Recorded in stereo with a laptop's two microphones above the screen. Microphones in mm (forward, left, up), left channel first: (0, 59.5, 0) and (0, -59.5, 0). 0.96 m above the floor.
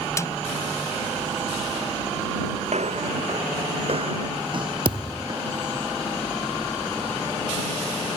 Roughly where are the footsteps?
Right.